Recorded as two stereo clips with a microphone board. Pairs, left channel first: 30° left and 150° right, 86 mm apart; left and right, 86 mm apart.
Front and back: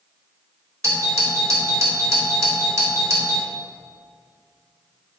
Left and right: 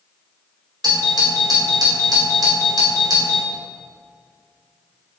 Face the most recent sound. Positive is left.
turn(degrees=-105)